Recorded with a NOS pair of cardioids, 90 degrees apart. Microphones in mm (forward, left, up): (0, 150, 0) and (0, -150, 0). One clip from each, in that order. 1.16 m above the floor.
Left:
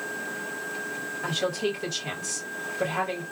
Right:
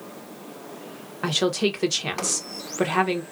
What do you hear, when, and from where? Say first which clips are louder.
1.2 s a woman speaking: right 5 dB; 60° right, 1.0 m